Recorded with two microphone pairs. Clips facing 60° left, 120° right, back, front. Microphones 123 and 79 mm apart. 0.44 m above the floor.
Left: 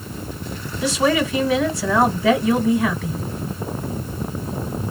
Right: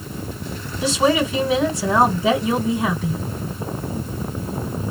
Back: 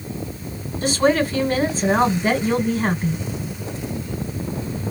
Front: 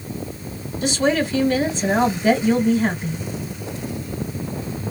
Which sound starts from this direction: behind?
A woman speaking, at 0.8 s.